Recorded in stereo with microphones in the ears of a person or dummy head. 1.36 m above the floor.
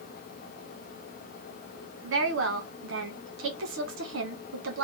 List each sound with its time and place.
2.0 s a woman speaking: 80° right, 1.5 m